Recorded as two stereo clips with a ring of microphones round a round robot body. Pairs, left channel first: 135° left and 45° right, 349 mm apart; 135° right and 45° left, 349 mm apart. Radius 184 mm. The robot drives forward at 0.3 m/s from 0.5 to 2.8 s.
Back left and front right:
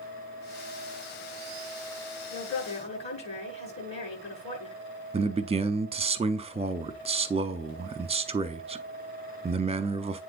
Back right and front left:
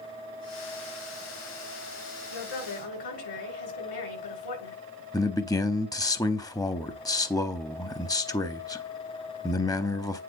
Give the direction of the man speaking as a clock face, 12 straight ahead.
3 o'clock.